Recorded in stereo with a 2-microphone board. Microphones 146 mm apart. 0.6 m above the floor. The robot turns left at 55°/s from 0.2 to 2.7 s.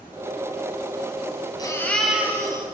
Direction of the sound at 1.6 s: 25° left.